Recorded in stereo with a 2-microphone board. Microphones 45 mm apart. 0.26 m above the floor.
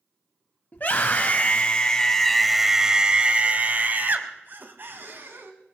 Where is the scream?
45° left (ahead or behind), 1.3 m; by 5.5 s 60° right (ahead or behind), 1.9 m.